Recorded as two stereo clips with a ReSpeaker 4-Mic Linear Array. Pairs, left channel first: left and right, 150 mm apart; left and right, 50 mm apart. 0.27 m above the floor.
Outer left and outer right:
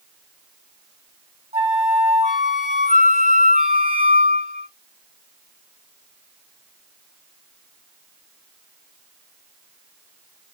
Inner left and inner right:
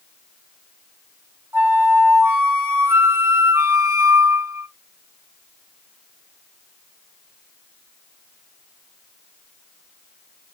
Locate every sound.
1.5 s a flute: 50° right (ahead or behind), 1.7 m